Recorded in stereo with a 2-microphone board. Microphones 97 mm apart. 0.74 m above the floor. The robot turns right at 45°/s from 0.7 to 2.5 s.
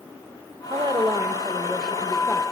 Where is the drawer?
No drawer in this recording.